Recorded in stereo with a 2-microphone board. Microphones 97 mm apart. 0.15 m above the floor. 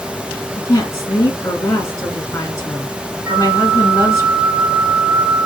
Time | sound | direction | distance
0.6 | a woman speaking | 30° left (ahead or behind) | 1.2 m
3.2 | a flute | 50° right (ahead or behind) | 1.4 m